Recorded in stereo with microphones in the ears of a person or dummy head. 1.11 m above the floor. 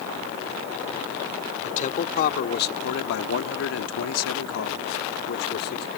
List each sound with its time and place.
1.6 s a man speaking: 45° left (ahead or behind)